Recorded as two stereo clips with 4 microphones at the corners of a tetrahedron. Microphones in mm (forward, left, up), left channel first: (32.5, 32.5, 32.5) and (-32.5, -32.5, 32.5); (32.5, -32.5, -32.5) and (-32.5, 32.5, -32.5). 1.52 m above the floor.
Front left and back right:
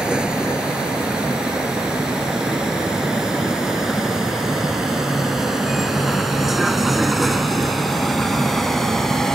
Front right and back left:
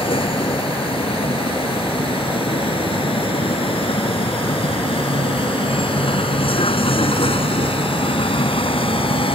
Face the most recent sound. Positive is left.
turn(degrees=-40)